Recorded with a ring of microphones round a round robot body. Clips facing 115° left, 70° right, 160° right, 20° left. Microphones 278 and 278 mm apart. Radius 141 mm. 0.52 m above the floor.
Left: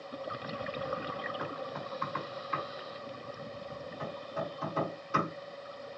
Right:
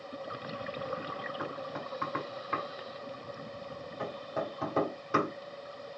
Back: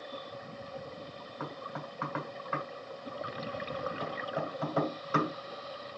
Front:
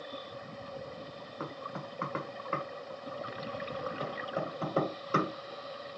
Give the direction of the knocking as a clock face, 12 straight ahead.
1 o'clock.